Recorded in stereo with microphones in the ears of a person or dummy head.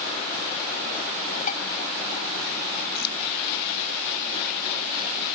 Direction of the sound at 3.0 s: 60° left (ahead or behind).